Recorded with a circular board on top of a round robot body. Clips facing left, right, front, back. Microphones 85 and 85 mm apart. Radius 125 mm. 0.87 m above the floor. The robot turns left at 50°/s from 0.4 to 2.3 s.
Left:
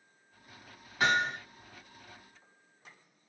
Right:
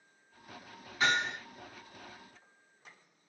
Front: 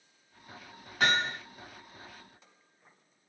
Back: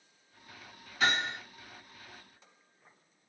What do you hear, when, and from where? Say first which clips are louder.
1.0 s hammering: left 2 dB, front 2 dB; 50° left, 1.3 m; by 1.4 s 30° left, 1.3 m